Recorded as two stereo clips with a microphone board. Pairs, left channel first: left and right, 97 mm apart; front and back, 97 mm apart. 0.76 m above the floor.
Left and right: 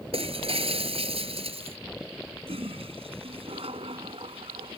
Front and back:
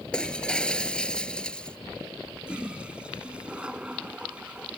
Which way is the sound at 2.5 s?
100° right.